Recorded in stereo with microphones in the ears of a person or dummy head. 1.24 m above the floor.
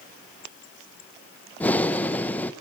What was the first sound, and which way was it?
Breathing, 10° left (ahead or behind).